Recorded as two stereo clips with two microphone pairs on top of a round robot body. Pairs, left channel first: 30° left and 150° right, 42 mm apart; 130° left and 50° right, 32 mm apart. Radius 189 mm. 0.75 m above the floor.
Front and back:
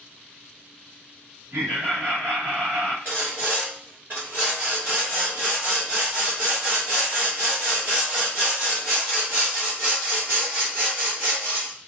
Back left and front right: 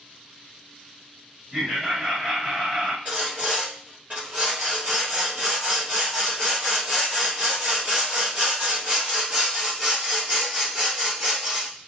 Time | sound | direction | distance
1.5 | laughter | 120° right | 1.7 m
3.0 | sawing | 105° right | 0.7 m